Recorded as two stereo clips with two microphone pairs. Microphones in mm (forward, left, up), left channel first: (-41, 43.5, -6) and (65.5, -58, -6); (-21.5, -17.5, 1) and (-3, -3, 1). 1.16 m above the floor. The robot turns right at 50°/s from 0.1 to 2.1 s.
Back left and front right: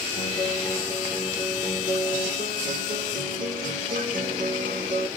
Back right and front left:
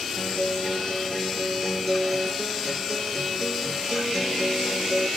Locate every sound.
0.2 s a guitar: 155° right, 2.5 m; by 5.1 s 55° right, 2.5 m